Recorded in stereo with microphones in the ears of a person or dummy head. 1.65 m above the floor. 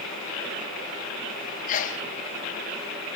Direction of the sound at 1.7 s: 45° left (ahead or behind).